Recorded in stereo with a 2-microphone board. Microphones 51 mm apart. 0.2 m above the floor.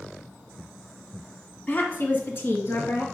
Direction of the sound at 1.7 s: 35° left (ahead or behind).